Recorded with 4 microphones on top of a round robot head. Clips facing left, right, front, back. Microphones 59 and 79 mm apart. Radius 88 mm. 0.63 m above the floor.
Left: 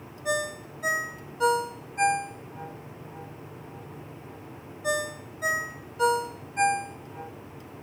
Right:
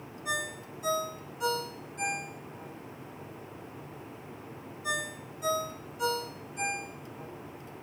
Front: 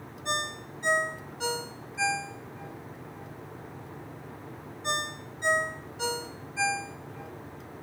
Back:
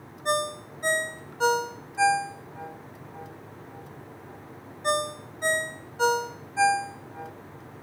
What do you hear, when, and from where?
0.2 s a ringtone: 135° left, 1.0 m